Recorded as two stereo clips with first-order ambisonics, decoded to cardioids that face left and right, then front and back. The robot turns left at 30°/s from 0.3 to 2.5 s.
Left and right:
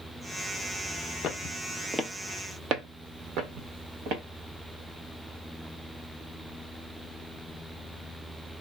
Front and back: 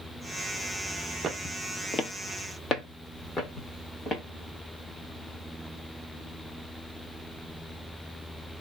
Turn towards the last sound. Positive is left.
turn(degrees=-65)